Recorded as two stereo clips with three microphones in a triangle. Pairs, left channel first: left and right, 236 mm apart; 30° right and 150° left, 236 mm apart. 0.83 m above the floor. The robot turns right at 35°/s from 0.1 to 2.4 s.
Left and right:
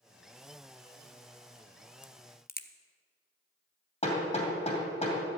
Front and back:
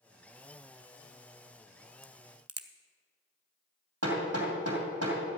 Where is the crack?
125° left, 0.6 m; by 2.7 s 140° left, 0.6 m.